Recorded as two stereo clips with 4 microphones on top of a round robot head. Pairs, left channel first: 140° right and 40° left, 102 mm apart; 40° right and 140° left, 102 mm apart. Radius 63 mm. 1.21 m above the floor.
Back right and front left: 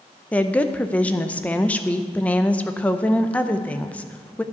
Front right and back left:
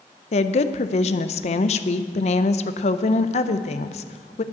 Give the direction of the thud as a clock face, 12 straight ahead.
No thud in this recording.